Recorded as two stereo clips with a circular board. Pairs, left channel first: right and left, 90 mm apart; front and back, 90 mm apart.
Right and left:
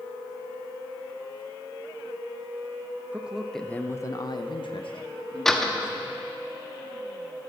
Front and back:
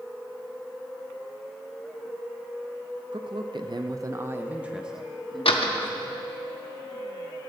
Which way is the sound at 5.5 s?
5° right.